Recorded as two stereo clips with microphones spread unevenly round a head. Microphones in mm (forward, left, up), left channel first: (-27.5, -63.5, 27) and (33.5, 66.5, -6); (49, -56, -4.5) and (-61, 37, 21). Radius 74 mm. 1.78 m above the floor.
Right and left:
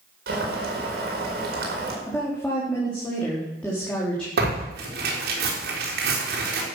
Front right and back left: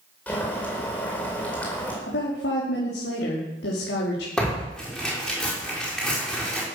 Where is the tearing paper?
45° left, 4.5 m.